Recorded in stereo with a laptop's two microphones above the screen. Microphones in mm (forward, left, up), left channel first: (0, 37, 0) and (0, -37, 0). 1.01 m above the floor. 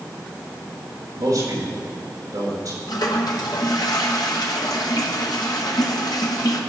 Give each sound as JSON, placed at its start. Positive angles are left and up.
{"t": 1.1, "sound": "a man speaking", "side_deg": -50, "distance_m": 3.5}
{"t": 2.9, "sound": "a toilet flushing", "side_deg": 65, "distance_m": 1.4}